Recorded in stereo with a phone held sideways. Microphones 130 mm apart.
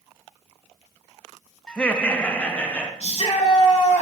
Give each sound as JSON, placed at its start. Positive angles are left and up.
{"t": 1.7, "sound": "laughter", "side_deg": 5, "distance_m": 0.6}
{"t": 3.0, "sound": "a shout", "side_deg": 55, "distance_m": 2.5}